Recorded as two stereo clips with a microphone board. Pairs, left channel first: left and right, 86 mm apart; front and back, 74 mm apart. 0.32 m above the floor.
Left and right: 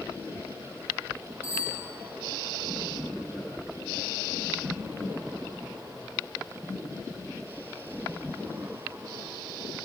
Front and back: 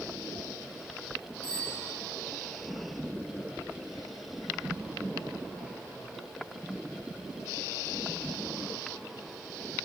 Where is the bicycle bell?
145° left, 8.5 m.